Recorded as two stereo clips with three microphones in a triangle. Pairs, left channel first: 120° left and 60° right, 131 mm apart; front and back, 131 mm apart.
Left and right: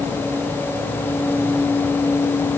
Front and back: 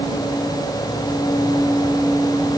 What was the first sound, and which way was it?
Only background noise.